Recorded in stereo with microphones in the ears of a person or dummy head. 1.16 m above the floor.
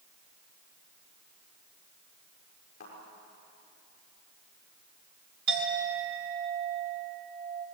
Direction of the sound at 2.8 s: 40° left (ahead or behind).